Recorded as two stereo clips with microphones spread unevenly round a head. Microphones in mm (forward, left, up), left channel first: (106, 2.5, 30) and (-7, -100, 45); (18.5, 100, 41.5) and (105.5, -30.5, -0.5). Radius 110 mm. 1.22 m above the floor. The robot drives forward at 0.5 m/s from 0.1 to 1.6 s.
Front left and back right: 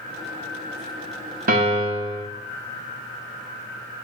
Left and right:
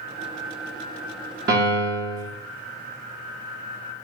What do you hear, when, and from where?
1.5 s a piano: 110° right, 0.8 m; by 2.2 s 115° right, 0.8 m